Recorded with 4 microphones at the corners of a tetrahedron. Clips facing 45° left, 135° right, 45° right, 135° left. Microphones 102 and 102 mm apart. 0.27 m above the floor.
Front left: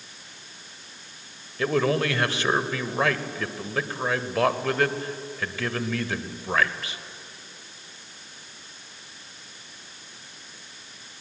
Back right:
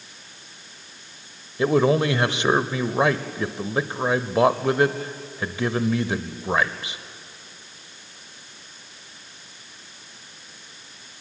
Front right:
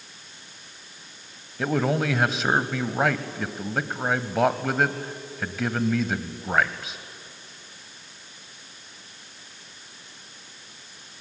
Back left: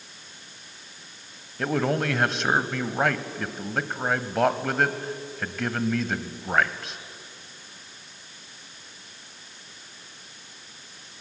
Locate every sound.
1.6 s a man speaking: 125° right, 0.9 m